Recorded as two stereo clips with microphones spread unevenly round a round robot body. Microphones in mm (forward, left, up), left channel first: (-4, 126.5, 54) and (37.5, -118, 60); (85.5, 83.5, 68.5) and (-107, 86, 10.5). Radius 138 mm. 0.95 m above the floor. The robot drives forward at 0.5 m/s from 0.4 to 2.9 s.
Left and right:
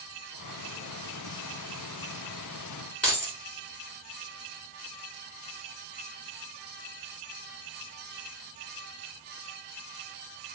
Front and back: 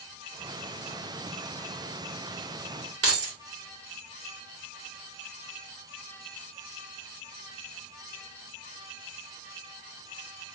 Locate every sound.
3.0 s keys jangling: 175° right, 1.4 m